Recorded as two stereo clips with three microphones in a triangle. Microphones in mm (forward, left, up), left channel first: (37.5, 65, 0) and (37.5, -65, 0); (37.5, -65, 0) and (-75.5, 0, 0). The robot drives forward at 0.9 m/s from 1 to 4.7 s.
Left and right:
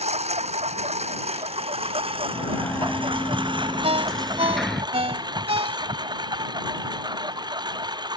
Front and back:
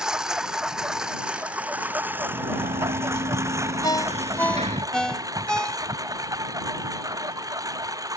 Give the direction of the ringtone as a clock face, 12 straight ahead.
3 o'clock.